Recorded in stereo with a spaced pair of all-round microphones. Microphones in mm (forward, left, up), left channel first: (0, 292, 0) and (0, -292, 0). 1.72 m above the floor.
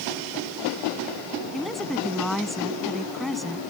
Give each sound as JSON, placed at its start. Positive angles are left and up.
{"t": 1.5, "sound": "a woman speaking", "side_deg": 0}